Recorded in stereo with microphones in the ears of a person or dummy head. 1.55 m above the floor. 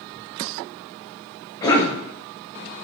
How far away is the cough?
About 0.5 m.